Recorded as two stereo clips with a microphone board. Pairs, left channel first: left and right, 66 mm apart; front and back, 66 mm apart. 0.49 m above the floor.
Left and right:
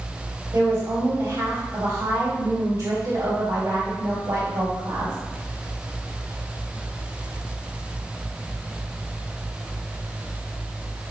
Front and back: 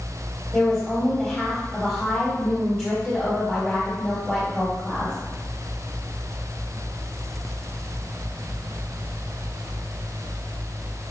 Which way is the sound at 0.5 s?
65° right.